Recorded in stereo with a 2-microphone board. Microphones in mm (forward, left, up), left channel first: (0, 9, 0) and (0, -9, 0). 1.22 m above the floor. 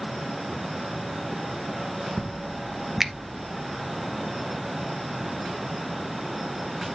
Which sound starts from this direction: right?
A finger snap, at 3.0 s.